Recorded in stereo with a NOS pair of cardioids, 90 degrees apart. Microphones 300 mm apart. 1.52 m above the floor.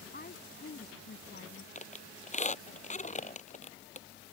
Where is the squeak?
25° left.